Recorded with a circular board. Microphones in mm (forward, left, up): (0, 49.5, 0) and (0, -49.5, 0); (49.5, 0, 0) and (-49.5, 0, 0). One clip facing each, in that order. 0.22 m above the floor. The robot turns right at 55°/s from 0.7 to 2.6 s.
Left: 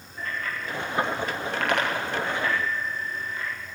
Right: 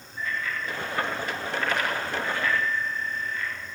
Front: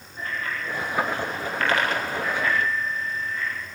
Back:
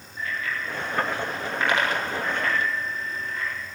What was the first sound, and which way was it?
A bicycle bell, 50° left.